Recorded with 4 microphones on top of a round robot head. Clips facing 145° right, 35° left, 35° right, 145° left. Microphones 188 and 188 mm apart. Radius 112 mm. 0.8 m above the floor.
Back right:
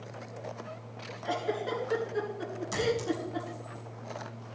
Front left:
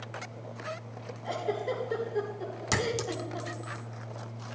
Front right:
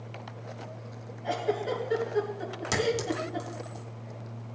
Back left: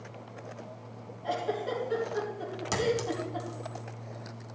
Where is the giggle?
115° right, 5.5 m.